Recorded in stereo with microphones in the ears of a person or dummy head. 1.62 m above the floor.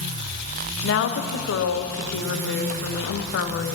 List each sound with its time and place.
0.8 s a woman speaking: 70° left (ahead or behind), 0.9 m